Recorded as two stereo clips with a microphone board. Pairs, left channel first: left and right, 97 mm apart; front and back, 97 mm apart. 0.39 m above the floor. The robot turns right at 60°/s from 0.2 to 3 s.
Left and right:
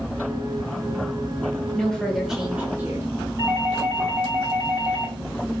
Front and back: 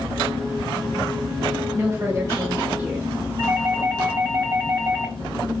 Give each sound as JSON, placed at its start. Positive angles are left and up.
{"t": 1.7, "sound": "a woman speaking", "azimuth_deg": 155, "distance_m": 0.9}
{"t": 3.4, "sound": "a doorbell", "azimuth_deg": -130, "distance_m": 3.5}